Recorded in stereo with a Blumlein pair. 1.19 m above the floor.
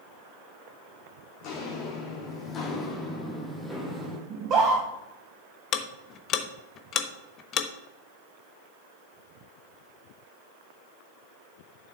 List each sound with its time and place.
1.4 s footsteps: 35° left, 4.5 m; by 4.2 s 20° right, 2.5 m
4.3 s a scream: 30° right, 1.9 m
5.7 s ticking: 35° left, 1.1 m